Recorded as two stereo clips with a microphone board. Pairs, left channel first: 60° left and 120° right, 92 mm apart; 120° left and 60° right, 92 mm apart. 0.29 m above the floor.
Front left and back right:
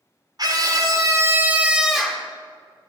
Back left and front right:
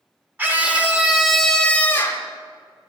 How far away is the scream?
About 1.4 m.